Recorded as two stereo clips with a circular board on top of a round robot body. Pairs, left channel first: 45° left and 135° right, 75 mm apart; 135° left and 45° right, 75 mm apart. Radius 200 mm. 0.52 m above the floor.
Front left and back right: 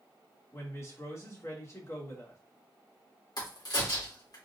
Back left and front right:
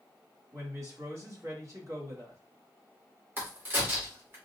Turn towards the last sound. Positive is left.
turn(degrees=20)